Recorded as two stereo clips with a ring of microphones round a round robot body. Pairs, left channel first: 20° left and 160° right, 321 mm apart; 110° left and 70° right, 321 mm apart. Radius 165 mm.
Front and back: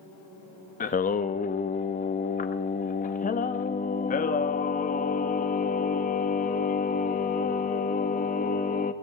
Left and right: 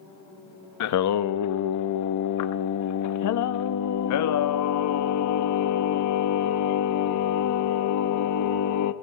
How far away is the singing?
About 0.7 m.